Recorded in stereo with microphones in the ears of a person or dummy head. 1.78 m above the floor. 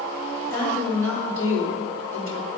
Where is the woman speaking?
80° right, 3.5 m.